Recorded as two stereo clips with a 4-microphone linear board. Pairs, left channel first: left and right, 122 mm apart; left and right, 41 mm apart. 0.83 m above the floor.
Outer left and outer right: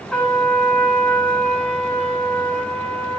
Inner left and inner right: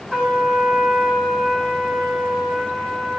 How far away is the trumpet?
About 8.5 m.